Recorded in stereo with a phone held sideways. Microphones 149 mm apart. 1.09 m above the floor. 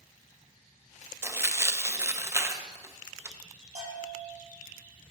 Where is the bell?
50° right (ahead or behind), 4 m.